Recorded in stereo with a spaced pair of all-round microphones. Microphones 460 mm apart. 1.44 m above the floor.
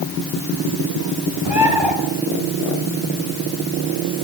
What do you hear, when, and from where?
1.4 s a bird: 75° right (ahead or behind), 5 m